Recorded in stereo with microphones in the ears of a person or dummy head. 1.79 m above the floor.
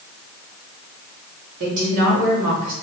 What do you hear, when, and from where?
1.6 s a woman speaking: 70° right (ahead or behind), 1.6 m